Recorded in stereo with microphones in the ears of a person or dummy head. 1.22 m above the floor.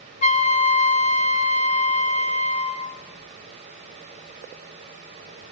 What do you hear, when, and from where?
0.2 s a flute: 35° left (ahead or behind), 1.9 m